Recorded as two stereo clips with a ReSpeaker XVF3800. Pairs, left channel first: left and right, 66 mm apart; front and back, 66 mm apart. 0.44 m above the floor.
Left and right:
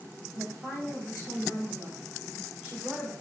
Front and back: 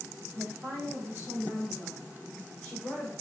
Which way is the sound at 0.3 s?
155° right.